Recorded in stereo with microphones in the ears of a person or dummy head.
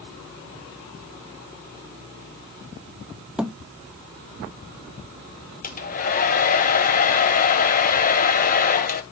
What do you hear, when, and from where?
3.4 s a thud: 5° right (ahead or behind), 0.7 m
5.6 s a hair dryer: 40° left (ahead or behind), 1.0 m